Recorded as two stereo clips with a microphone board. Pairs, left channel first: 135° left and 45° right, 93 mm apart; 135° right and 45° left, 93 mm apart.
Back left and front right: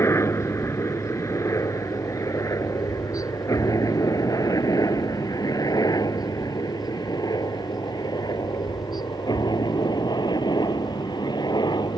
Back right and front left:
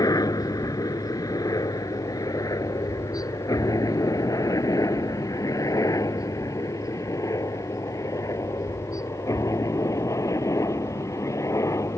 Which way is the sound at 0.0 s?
170° right.